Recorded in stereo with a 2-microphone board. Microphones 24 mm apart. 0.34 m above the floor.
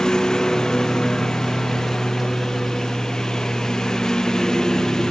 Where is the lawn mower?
25° left (ahead or behind).